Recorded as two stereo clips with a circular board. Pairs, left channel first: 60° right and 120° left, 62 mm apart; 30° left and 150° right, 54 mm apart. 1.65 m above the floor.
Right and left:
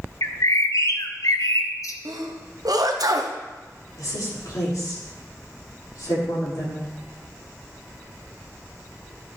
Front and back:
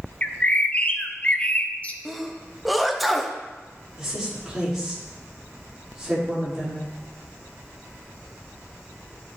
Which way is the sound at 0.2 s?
30° right.